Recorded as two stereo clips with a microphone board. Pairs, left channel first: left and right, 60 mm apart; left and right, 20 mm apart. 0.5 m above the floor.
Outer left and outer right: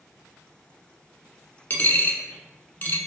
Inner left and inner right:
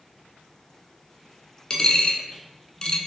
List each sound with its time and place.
1.7 s a dropped coin: 35° left (ahead or behind), 0.6 m